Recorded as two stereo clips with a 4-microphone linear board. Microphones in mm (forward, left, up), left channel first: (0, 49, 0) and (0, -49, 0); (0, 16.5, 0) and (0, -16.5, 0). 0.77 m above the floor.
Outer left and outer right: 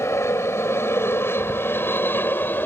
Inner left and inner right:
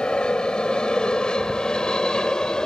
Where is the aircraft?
30° left (ahead or behind); by 2.7 s 20° left (ahead or behind).